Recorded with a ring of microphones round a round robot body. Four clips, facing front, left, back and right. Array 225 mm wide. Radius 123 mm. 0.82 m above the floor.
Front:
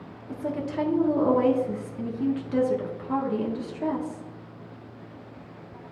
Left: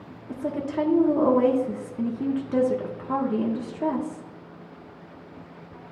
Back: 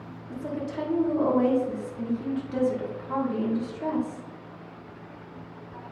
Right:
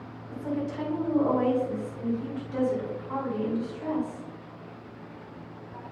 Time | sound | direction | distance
0.3 | a woman speaking | 75° left | 1.6 m